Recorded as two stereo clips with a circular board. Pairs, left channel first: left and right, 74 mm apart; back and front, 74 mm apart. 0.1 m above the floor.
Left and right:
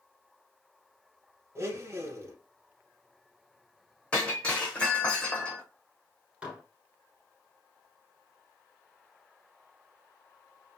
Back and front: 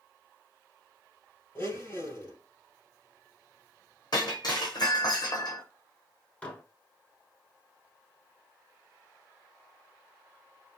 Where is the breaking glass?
165° left, 1.2 m.